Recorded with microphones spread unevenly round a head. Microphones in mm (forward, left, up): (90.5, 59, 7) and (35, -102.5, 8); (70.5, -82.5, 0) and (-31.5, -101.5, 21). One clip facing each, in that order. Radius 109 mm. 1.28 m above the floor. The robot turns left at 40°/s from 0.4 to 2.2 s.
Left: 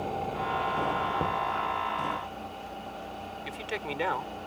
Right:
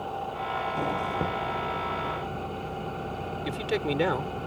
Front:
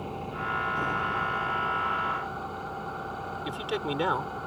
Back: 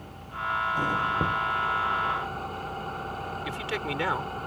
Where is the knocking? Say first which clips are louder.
Right 1 dB, back 2 dB; 170° left; by 1.4 s 160° left.